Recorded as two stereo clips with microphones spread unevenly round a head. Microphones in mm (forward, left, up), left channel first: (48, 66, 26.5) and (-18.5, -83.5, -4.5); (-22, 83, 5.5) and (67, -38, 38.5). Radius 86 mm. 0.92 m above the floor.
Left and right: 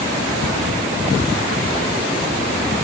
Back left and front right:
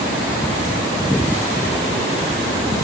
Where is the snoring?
I don't hear snoring.